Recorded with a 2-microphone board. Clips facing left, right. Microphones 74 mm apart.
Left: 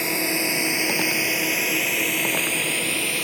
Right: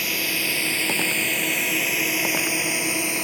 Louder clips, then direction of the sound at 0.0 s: Left 3 dB; 25° left (ahead or behind).